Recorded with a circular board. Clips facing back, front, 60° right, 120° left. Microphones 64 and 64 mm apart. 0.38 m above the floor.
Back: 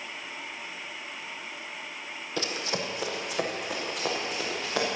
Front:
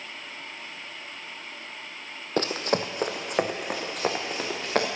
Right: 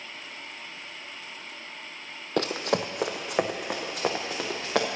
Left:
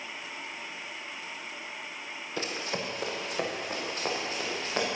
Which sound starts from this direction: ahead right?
Running footsteps, at 2.4 s.